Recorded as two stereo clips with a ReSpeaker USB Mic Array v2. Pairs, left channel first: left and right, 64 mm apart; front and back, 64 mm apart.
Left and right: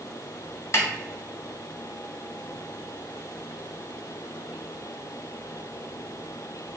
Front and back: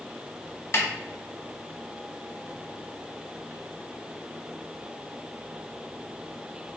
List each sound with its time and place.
0.7 s a snare drum: 45° left, 0.6 m